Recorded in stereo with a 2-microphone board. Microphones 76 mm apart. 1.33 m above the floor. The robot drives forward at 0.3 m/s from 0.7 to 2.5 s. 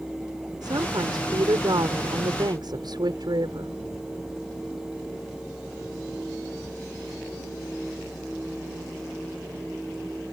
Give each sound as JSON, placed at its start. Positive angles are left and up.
{"t": 0.6, "sound": "a woman speaking", "side_deg": -70}